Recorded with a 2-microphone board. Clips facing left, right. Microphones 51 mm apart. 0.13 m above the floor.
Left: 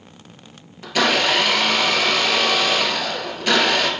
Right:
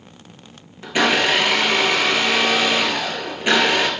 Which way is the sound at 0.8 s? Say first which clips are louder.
Right 1 dB; 20° right (ahead or behind).